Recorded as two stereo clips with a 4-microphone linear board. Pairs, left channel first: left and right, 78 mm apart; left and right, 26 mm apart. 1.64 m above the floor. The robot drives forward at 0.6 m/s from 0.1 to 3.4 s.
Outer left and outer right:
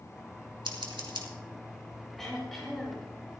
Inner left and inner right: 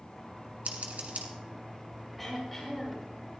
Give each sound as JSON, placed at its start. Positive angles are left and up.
{"t": 0.7, "sound": "scissors", "side_deg": -90, "distance_m": 2.5}
{"t": 2.2, "sound": "throat clearing", "side_deg": 5, "distance_m": 5.0}